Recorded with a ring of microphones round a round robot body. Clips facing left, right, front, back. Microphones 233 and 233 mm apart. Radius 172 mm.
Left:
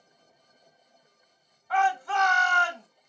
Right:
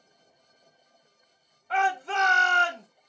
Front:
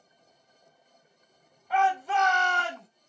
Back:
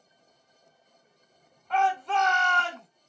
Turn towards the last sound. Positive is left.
turn(degrees=-75)